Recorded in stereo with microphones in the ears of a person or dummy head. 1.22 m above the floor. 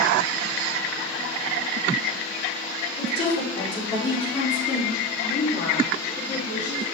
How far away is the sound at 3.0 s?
About 4.5 m.